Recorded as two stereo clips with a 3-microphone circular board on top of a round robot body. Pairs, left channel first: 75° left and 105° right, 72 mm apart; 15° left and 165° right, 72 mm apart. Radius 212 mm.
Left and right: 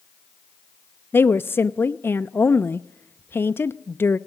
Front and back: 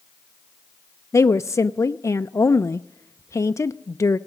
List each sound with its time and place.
1.1 s a woman speaking: 30° left, 0.6 m